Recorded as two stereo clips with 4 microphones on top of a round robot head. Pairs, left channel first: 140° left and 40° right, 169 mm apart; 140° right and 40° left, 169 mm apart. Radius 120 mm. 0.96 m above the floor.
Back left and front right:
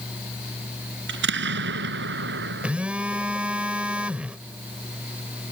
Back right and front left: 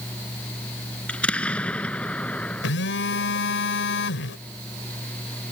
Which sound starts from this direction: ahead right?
An explosion, at 1.1 s.